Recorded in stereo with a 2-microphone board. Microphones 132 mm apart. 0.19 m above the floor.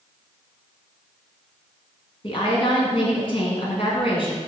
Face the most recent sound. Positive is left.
turn(degrees=45)  # may be behind; listen again after turning